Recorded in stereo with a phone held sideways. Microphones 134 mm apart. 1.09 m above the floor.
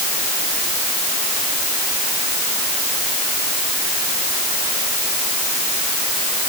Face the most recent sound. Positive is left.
No sound to turn to.